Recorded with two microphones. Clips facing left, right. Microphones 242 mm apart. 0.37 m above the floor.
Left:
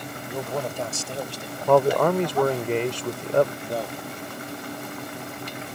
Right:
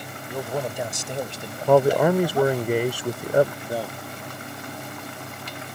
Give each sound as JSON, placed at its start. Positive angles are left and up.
{"t": 0.3, "sound": "a man speaking", "side_deg": 0}
{"t": 1.7, "sound": "a man speaking", "side_deg": -10}
{"t": 3.6, "sound": "a man speaking", "side_deg": -5}